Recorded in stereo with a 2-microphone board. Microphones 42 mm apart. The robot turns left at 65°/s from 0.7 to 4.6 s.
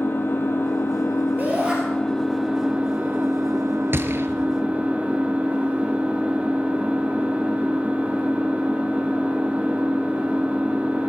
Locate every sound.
0.0 s an engine running: 105° left, 2 m; by 11.1 s 145° right, 2 m
1.4 s a shout: 45° right (ahead or behind), 3 m; by 1.8 s 25° right (ahead or behind), 3 m
3.9 s a gunshot: 55° right (ahead or behind), 0.8 m; by 4.3 s 65° right (ahead or behind), 0.8 m